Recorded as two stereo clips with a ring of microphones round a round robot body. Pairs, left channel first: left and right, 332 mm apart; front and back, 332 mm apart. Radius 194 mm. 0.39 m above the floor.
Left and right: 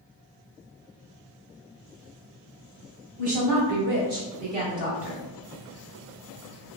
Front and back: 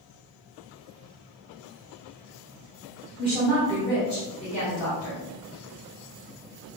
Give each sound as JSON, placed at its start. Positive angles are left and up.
{"t": 3.2, "sound": "a woman speaking", "azimuth_deg": -95, "distance_m": 1.5}